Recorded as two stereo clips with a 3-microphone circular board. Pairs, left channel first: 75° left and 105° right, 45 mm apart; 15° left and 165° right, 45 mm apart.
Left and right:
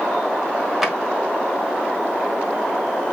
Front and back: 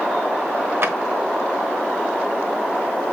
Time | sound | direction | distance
0.8 | a drawer | 170° left | 1.1 m